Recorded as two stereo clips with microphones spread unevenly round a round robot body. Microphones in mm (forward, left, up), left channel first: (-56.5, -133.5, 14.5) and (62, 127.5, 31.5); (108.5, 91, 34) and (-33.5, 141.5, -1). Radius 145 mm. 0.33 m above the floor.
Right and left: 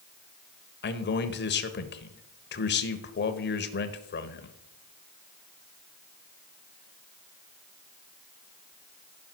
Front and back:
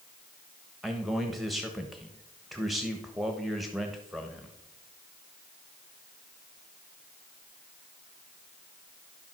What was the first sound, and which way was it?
A man speaking, 125° right.